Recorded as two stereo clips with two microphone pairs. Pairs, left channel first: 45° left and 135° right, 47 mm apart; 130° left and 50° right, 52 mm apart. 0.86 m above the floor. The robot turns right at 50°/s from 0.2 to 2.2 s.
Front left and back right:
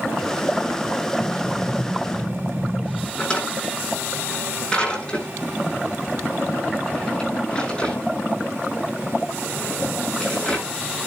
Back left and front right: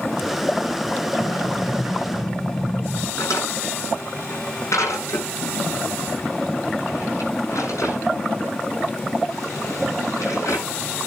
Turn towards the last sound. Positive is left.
turn(degrees=115)